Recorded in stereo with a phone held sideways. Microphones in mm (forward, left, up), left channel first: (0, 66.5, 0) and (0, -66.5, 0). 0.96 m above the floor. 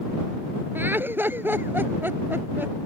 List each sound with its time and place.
0.8 s laughter: 15° right (ahead or behind)